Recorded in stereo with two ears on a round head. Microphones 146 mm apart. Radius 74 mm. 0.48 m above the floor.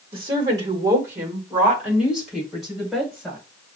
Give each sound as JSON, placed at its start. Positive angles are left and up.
{"t": 0.1, "sound": "a woman speaking", "side_deg": -30, "distance_m": 1.1}